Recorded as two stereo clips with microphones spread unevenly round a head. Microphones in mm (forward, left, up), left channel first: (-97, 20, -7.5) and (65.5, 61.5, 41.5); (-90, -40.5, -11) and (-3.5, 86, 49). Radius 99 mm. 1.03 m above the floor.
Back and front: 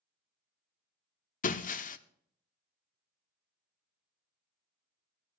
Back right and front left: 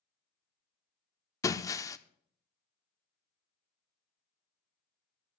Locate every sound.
1.4 s breaking glass: 155° left, 0.8 m